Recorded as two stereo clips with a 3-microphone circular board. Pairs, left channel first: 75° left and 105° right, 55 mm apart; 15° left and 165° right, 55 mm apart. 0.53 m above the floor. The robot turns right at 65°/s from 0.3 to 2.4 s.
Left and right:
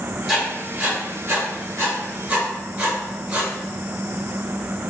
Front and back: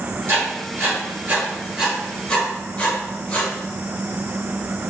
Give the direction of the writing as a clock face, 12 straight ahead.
6 o'clock.